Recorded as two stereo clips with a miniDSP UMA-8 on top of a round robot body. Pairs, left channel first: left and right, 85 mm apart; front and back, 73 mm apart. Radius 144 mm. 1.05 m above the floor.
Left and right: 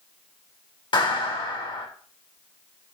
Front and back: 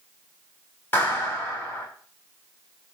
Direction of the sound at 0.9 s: 60° left.